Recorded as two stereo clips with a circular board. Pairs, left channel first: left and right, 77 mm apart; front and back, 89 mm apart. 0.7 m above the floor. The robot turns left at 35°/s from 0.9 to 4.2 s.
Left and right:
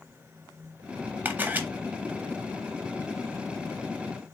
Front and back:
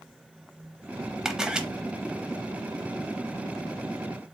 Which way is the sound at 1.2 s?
100° right.